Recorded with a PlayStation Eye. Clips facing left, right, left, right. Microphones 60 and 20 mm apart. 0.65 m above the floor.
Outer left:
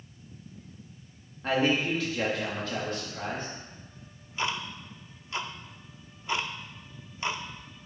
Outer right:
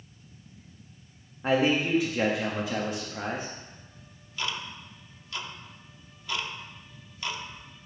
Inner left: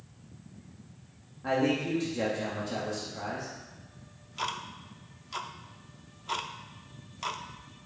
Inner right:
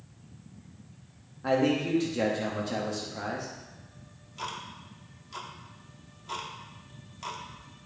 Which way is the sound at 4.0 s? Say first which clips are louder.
Outer left 3 dB, inner left 4 dB; 25° left (ahead or behind).